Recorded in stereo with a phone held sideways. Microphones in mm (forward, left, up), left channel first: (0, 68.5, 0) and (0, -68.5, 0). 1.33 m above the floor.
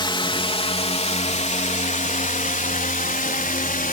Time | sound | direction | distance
0.0 | a drone | 35° left (ahead or behind) | ?